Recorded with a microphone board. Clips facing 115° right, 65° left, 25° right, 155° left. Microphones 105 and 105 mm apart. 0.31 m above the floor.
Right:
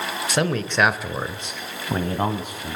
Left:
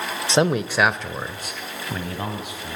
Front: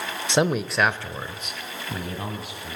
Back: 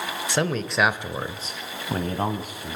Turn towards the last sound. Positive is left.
turn(degrees=-160)